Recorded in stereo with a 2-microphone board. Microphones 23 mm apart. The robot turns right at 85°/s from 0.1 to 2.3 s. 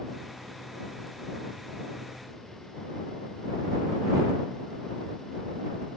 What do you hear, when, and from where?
Only background noise.